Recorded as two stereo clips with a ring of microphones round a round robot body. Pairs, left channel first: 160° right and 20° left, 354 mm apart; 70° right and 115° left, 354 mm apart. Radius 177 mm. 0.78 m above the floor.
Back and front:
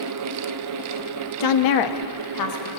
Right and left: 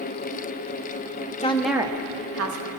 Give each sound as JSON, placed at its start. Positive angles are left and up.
{"t": 1.4, "sound": "a woman speaking", "azimuth_deg": -135, "distance_m": 0.8}